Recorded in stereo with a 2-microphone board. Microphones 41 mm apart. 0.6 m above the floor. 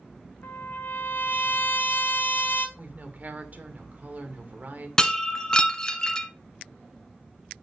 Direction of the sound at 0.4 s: 65° left (ahead or behind).